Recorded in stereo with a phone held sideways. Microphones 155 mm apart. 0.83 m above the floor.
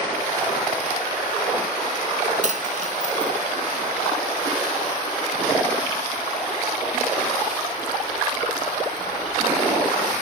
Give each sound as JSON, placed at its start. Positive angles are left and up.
{"t": 2.4, "sound": "a dropped coin", "side_deg": -55, "distance_m": 1.2}